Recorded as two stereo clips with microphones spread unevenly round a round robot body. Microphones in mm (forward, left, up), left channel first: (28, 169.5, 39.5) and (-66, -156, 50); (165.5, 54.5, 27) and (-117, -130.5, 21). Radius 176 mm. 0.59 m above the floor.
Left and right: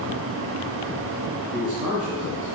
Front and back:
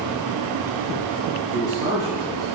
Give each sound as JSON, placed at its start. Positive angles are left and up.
{"t": 1.5, "sound": "a man speaking", "azimuth_deg": -15, "distance_m": 4.5}